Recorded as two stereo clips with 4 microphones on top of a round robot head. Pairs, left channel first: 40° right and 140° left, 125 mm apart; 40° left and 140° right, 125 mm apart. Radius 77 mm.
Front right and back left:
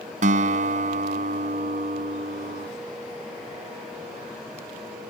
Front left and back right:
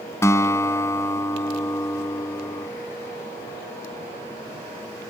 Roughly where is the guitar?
Left.